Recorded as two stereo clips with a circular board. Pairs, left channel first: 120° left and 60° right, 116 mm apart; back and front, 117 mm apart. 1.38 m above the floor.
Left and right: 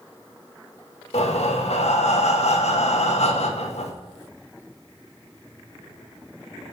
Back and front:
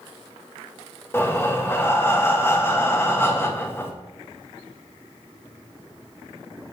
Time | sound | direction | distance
1.1 | breathing | 110° left | 1.0 m